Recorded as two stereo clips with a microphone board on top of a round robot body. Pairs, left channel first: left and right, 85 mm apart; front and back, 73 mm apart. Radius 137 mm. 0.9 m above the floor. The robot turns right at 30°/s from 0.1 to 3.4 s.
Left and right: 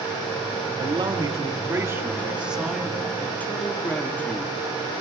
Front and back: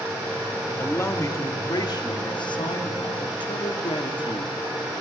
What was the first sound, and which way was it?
A man speaking, 60° right.